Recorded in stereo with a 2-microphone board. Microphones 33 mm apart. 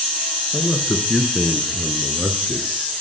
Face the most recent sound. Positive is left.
turn(degrees=-35)  # may be behind; listen again after turning